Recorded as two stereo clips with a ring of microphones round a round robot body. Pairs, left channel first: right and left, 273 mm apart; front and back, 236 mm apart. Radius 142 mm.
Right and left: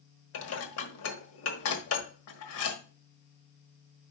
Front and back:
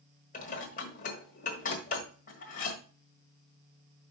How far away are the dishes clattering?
About 1.4 m.